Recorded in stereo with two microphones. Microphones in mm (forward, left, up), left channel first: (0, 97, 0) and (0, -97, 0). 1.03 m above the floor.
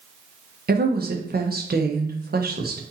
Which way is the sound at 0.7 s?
55° right (ahead or behind).